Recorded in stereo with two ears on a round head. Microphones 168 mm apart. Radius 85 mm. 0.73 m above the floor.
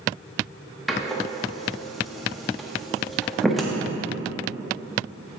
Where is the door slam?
Centre (ahead or behind), 0.7 m.